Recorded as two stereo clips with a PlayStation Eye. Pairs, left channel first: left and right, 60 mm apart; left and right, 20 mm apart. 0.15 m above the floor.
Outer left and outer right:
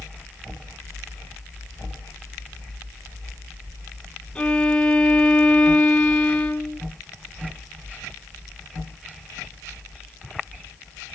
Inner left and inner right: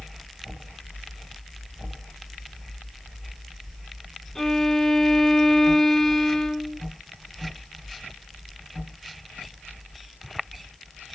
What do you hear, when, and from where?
4.3 s a violin: 15° left (ahead or behind), 1.0 m